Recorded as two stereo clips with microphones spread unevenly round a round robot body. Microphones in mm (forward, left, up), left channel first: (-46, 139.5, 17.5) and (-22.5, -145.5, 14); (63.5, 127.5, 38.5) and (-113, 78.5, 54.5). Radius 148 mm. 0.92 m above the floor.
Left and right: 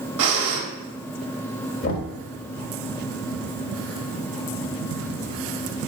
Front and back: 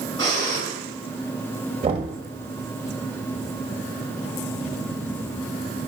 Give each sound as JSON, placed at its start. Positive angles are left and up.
{"t": 0.2, "sound": "breathing", "azimuth_deg": -55, "distance_m": 1.8}
{"t": 1.8, "sound": "knocking", "azimuth_deg": 140, "distance_m": 1.4}